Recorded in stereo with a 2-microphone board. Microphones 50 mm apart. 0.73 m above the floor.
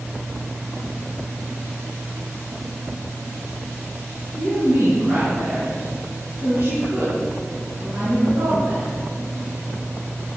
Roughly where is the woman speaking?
Right.